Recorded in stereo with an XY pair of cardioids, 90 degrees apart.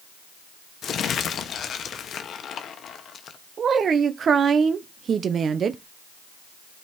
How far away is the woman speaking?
About 0.9 m.